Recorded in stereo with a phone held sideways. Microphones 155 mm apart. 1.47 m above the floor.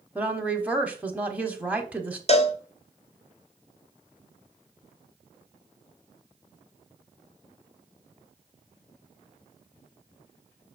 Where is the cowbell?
40° left (ahead or behind), 0.9 m.